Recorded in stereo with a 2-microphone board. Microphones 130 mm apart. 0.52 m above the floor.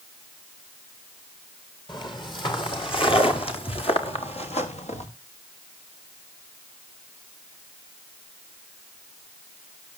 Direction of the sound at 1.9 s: 35° left (ahead or behind).